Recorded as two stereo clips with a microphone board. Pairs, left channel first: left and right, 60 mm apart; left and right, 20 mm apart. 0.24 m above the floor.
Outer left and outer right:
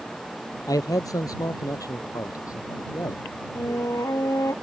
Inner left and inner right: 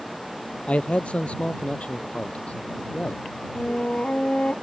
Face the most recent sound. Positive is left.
turn(degrees=65)  # may be behind; listen again after turning